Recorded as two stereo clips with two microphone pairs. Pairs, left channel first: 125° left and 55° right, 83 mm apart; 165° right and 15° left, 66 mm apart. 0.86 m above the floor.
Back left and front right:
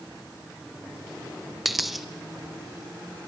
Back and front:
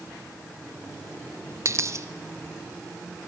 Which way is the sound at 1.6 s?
35° left.